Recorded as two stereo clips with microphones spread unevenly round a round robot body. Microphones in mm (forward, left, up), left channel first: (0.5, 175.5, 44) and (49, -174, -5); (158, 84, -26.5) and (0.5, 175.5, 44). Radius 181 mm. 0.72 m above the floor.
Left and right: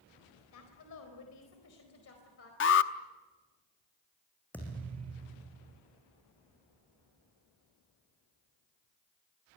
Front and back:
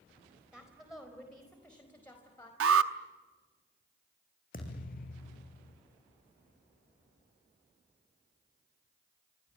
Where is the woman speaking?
60° left, 4 m; by 2.5 s 40° left, 4.5 m.